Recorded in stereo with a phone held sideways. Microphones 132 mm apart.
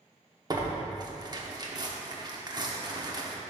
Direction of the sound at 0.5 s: 30° right (ahead or behind).